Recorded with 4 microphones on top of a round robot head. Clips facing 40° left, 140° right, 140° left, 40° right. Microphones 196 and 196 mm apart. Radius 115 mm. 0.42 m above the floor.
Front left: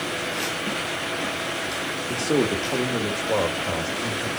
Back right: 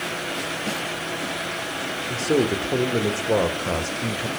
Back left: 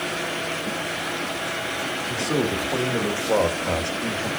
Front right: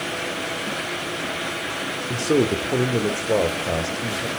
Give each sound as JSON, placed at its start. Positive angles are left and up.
{"t": 2.1, "sound": "a man speaking", "azimuth_deg": -45, "distance_m": 1.4}